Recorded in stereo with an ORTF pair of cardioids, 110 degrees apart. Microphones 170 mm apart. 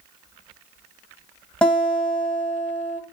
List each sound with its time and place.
1.6 s a guitar: 5° left, 1.7 m